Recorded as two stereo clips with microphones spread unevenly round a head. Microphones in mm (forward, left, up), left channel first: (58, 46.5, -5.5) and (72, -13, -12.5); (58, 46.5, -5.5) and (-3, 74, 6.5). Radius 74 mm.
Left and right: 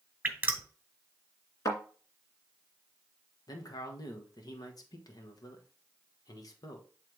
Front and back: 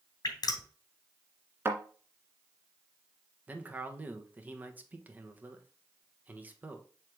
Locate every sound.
0.2 s dripping: 10° right, 1.8 m
1.6 s a thud: 115° left, 2 m
3.5 s a man speaking: 90° left, 1.4 m